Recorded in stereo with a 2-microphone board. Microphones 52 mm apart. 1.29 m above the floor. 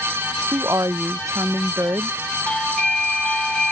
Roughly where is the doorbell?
Centre.